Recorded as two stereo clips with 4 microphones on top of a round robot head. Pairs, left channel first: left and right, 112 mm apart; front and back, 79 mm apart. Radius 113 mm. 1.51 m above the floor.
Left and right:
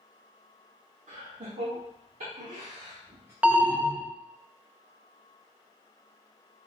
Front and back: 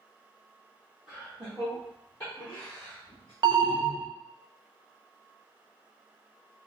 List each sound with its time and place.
1.1 s laughter: 95° right, 1.3 m; by 3.3 s 25° right, 0.7 m
3.4 s an alarm: 165° right, 0.5 m